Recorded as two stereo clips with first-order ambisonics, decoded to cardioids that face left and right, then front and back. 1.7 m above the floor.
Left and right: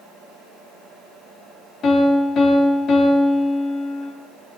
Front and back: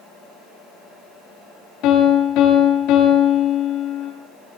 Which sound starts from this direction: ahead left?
A piano, at 1.8 s.